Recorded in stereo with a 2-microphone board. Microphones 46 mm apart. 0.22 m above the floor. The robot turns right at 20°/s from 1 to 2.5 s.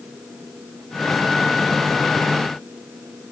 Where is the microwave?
I don't hear a microwave.